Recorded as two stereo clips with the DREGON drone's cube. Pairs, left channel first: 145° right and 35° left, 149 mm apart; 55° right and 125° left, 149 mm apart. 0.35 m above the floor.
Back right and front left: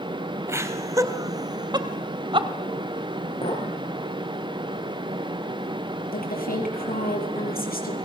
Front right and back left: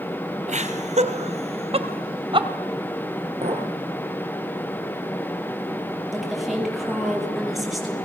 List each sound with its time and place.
0.5 s laughter: 105° left, 3 m; by 2.5 s 80° left, 2.5 m
3.4 s a clink: 170° left, 6 m
6.1 s a woman speaking: 145° right, 8.5 m